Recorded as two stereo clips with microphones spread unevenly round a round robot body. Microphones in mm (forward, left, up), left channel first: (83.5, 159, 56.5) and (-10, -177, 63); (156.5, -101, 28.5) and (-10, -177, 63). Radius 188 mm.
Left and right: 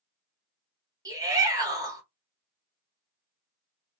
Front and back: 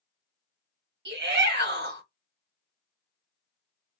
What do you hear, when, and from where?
1.1 s a shout: 175° left, 1.3 m